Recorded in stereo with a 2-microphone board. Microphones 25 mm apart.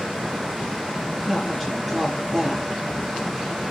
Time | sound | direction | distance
1.3 | a woman speaking | 5° left (ahead or behind) | 5 m